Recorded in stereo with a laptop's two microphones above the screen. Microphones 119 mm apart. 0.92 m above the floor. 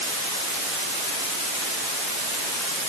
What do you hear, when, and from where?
Only background noise.